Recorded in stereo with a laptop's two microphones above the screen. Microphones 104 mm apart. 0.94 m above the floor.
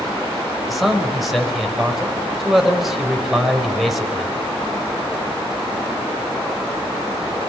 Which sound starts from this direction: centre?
A man speaking, at 0.7 s.